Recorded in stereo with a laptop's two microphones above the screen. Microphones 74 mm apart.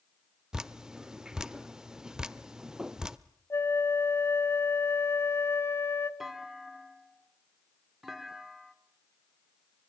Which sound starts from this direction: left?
A flute, at 3.5 s.